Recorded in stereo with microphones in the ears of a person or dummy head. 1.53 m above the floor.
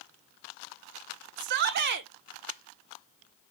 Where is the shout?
50° right (ahead or behind), 0.8 m.